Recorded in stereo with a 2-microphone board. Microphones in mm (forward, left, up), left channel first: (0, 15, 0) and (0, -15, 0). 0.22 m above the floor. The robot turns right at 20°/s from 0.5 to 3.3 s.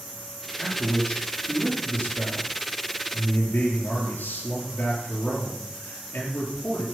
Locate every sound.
0.6 s a man speaking: 35° left, 4.5 m; by 6.8 s 85° left, 4.5 m